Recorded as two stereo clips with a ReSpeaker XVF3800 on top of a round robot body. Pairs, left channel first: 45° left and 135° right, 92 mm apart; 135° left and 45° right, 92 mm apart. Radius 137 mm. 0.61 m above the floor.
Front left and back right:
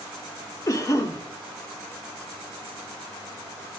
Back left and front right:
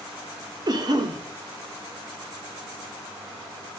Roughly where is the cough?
Ahead.